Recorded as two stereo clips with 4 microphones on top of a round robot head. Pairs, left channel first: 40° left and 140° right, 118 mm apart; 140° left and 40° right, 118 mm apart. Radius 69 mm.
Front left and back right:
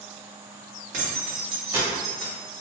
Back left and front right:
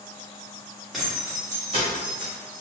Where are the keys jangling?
125° right, 0.8 m; by 2.6 s 30° right, 0.9 m.